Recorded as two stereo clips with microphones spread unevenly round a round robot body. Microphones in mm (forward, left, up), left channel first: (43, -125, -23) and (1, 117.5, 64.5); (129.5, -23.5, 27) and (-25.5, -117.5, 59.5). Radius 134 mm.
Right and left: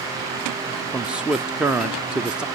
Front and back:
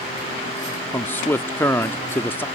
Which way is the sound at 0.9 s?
15° right.